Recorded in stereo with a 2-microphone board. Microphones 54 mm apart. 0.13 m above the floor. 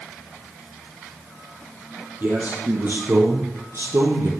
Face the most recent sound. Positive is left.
turn(degrees=-65)  # may be behind; listen again after turning